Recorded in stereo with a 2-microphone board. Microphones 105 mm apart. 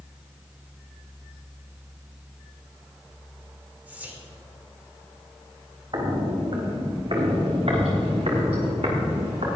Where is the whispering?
15° right (ahead or behind), 1.3 m.